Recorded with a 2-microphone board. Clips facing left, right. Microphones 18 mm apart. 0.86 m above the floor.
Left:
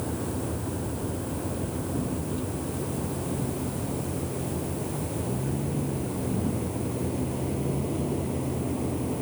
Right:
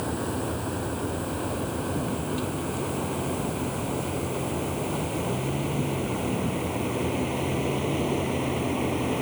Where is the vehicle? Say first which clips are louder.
Right 2 dB; 40° right (ahead or behind); by 9.2 s 75° right (ahead or behind).